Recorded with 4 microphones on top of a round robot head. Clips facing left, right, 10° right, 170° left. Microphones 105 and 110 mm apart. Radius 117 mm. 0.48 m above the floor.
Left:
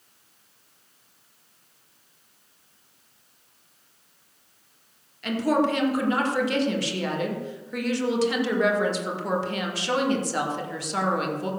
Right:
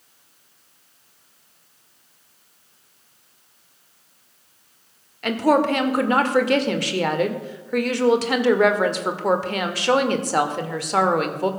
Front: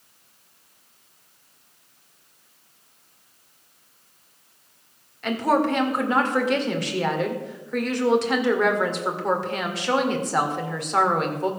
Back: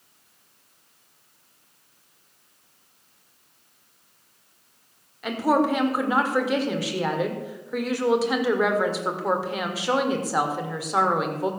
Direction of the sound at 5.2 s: 105° right.